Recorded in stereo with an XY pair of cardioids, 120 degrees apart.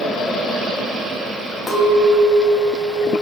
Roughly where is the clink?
Ahead.